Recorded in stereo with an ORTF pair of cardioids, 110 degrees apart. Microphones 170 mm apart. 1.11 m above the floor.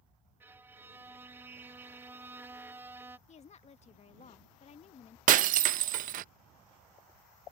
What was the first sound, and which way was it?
A violin, 10° right.